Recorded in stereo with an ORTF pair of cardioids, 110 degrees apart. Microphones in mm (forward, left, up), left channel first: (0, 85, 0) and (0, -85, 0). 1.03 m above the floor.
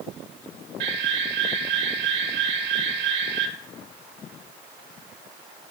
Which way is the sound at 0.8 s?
70° right.